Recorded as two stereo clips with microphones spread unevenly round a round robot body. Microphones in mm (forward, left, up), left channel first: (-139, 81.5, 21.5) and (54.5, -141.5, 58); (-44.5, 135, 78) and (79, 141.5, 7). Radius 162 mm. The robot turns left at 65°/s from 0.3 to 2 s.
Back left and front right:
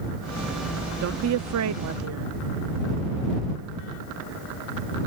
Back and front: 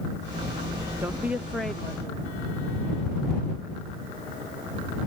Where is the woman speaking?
10° right; by 2.3 s 75° right.